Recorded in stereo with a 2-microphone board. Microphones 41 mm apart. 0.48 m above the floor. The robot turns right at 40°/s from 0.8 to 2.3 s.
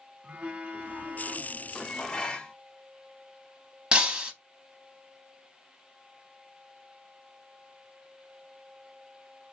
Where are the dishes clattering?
15° left (ahead or behind), 0.5 m; by 2.5 s 20° left (ahead or behind), 0.5 m.